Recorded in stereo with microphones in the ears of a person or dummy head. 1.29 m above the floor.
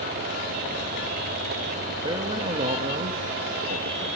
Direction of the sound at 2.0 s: 10° right (ahead or behind).